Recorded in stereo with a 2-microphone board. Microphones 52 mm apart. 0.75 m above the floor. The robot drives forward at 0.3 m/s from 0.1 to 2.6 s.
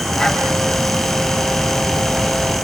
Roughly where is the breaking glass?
No breaking glass in this recording.